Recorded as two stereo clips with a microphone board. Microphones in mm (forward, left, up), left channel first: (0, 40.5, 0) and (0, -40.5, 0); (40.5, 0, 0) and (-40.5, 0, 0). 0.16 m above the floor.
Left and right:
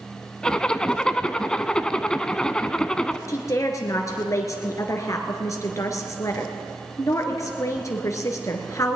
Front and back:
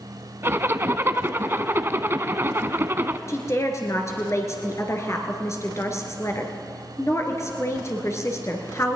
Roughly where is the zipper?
Behind.